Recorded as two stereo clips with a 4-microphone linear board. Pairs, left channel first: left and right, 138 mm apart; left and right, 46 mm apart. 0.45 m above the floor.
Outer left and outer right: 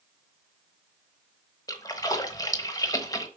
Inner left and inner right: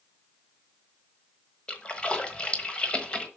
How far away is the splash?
About 1.1 m.